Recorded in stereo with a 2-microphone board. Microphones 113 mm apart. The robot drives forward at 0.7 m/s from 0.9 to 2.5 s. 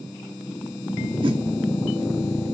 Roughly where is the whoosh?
Right.